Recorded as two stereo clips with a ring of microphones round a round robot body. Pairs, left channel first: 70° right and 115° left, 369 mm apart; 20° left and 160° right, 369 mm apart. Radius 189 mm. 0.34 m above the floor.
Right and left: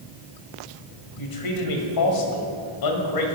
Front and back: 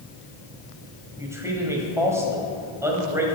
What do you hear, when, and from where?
1.2 s a man speaking: 75° right, 1.7 m